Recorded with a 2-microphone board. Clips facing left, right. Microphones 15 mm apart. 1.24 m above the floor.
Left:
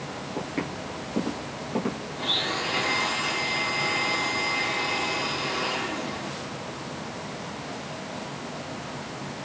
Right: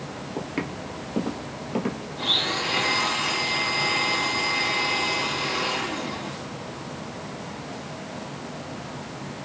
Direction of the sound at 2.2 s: 10° right (ahead or behind).